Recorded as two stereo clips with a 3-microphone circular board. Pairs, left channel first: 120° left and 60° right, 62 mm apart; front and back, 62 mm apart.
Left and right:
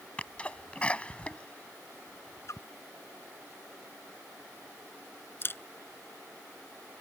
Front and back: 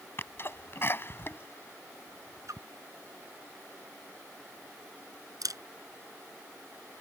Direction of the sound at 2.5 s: 155° left.